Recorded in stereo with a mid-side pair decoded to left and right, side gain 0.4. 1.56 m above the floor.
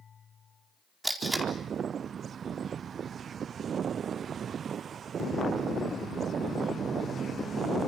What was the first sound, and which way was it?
Tape being pulled, 10° right.